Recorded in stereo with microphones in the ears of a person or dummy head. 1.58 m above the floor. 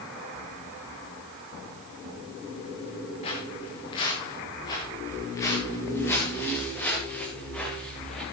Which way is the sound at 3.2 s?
30° left (ahead or behind).